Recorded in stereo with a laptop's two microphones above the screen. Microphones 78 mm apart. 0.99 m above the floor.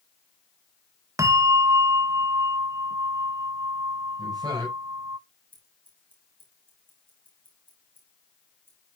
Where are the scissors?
25° right (ahead or behind), 3 m.